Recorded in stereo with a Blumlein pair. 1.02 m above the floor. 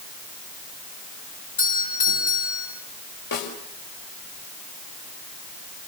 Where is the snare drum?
55° left, 5 m.